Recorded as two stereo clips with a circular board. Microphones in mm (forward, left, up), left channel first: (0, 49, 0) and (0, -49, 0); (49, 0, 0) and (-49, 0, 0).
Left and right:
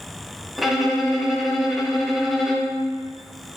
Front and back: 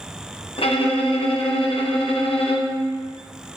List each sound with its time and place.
0.6 s a violin: straight ahead, 0.9 m